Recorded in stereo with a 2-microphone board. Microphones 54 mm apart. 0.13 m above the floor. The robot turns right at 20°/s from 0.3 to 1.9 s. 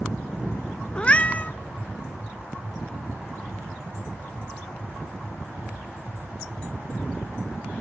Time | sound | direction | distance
0.9 | a cat meowing | 20° left (ahead or behind) | 0.7 m